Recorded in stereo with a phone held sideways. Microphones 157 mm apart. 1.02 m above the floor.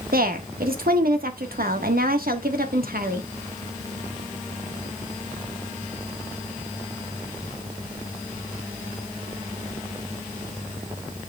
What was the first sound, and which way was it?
A woman speaking, 80° right.